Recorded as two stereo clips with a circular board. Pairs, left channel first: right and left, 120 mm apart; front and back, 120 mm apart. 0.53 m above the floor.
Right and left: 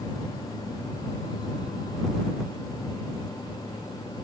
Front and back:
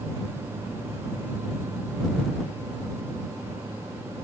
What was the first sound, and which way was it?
Only background noise.